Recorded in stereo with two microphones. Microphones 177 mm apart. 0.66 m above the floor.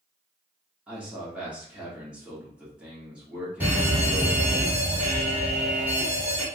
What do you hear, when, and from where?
0.9 s a man speaking: 5° right (ahead or behind), 1.8 m
3.6 s an alarm: 10° right (ahead or behind), 1.9 m